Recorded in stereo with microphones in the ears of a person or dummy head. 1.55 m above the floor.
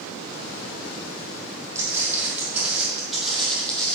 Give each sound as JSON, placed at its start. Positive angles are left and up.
{"t": 1.8, "sound": "footsteps", "side_deg": -15, "distance_m": 4.0}